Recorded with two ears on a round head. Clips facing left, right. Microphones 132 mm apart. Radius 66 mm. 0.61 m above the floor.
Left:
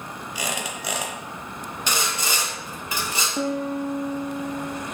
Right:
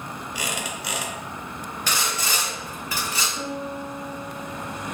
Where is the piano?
45° left (ahead or behind), 0.5 m.